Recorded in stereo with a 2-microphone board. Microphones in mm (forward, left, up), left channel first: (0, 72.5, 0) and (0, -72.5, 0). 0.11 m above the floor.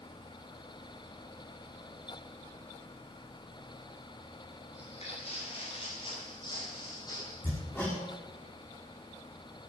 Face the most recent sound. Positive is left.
turn(degrees=10)  # may be behind; listen again after turning